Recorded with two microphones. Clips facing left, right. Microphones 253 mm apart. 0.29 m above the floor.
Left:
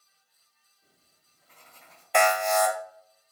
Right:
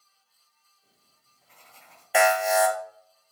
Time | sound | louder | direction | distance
0.8 | writing | left 1 dB | 45° left (ahead or behind) | 3 m
2.1 | an alarm | right 2 dB | 5° right (ahead or behind) | 1.1 m